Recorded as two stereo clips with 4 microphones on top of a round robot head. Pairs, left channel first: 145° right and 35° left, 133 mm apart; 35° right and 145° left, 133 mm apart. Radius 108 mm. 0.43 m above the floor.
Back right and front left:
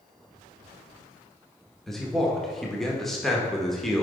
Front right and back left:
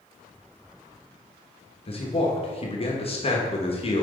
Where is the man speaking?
55° right, 1.3 m.